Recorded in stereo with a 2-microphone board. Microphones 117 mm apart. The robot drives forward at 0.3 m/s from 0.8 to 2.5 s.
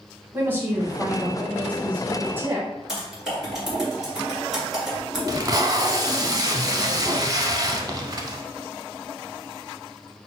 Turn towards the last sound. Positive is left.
turn(degrees=-35)  # may be behind; listen again after turning